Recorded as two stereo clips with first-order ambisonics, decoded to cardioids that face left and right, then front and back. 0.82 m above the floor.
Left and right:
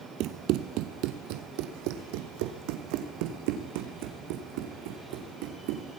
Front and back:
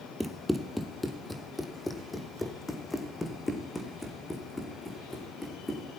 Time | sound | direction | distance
0.2 | running footsteps | 90° right | 1.2 m